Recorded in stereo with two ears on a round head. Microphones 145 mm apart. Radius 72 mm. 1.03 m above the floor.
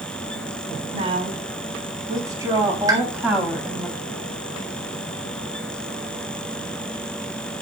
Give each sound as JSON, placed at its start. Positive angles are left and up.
{"t": 0.9, "sound": "a woman speaking", "side_deg": -35, "distance_m": 7.5}
{"t": 2.9, "sound": "a pop", "side_deg": -20, "distance_m": 4.0}